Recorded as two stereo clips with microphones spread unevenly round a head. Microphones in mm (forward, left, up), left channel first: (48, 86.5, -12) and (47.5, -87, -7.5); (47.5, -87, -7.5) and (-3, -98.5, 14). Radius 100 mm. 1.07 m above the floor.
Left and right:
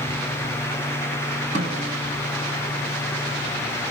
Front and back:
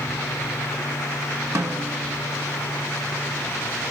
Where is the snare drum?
150° right, 1.9 m.